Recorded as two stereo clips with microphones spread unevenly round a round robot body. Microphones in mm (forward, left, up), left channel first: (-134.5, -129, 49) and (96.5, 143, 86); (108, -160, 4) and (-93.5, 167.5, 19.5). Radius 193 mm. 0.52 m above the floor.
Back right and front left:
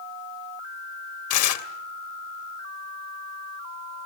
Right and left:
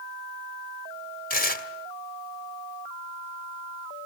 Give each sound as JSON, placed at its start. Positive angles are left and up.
{"t": 1.3, "sound": "tearing paper", "azimuth_deg": -120, "distance_m": 1.7}